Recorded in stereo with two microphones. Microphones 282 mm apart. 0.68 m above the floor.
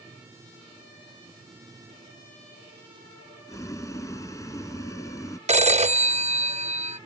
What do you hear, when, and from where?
3.5 s boiling: 10° left (ahead or behind)
5.5 s a phone ringing: 25° right (ahead or behind)